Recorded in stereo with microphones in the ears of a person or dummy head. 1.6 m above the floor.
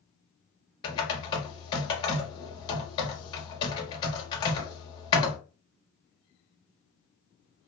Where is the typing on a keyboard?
30° left (ahead or behind), 0.8 m.